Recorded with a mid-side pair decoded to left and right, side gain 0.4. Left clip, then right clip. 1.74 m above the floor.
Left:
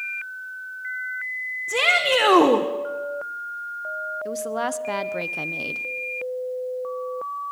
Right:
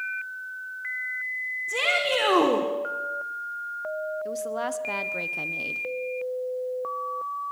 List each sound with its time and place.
1.7 s a shout: 40° left, 2 m
4.2 s a woman speaking: 30° left, 1.3 m